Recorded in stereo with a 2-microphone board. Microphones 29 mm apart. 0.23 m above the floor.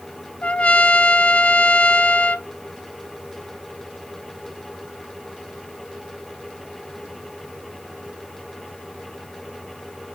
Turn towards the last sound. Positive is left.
turn(degrees=55)  # may be behind; listen again after turning